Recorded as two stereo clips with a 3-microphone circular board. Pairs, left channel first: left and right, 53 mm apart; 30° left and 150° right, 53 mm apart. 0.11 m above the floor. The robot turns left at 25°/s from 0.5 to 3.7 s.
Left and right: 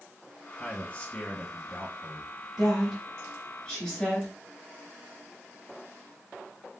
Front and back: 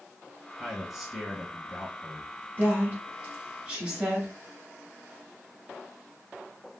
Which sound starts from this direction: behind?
A woman speaking, at 2.6 s.